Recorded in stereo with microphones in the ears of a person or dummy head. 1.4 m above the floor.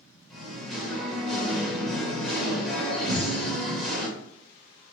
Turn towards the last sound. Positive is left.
turn(degrees=-40)  # may be behind; listen again after turning